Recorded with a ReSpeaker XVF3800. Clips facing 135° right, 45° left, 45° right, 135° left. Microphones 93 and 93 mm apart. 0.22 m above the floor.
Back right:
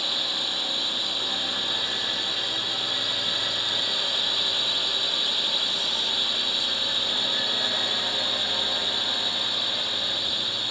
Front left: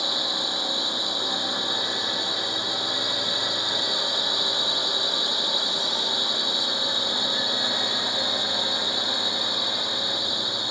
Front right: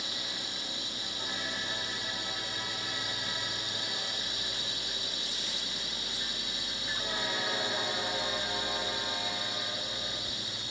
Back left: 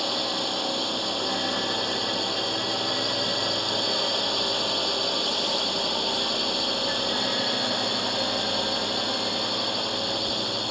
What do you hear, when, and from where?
0.0 s a drone: 115° left